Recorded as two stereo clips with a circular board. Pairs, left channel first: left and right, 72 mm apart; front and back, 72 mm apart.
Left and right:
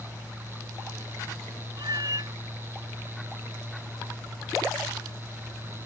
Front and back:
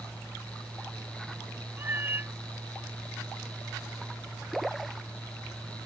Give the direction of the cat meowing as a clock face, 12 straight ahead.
4 o'clock.